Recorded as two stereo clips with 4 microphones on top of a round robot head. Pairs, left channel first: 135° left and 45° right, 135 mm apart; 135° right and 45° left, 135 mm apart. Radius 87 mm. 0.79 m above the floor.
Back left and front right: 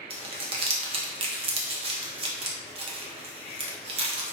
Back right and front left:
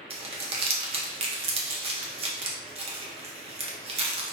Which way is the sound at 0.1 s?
Straight ahead.